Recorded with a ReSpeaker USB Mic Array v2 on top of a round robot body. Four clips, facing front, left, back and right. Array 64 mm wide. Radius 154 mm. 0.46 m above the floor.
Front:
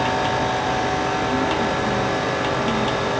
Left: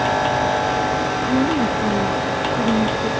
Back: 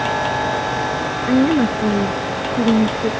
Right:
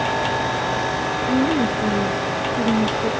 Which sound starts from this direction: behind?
A woman speaking, at 1.3 s.